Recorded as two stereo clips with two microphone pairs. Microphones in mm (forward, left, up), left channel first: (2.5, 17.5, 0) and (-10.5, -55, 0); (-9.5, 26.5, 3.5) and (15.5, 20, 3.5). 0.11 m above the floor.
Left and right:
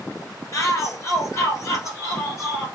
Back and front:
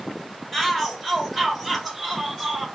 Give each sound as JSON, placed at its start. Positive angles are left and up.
{"t": 0.5, "sound": "a shout", "azimuth_deg": 70, "distance_m": 2.0}